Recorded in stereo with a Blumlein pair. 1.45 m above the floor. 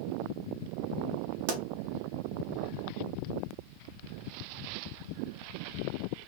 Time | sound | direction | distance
1.5 | a pop | 55° right | 1.1 m